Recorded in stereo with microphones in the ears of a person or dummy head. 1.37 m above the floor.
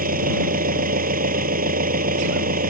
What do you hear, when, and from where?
0.0 s an engine running: 45° right (ahead or behind)